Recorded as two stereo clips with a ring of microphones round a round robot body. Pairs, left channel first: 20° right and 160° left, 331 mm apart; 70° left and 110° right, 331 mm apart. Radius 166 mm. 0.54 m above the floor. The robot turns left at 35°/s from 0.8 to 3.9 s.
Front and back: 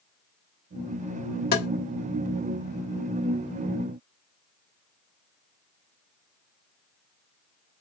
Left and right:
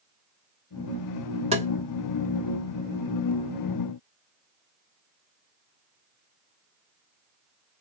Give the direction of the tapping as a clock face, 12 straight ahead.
2 o'clock.